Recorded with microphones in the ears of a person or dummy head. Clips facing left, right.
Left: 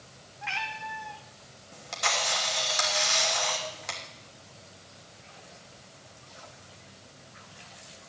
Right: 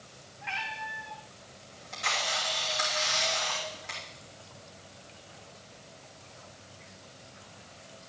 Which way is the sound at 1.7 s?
70° left (ahead or behind).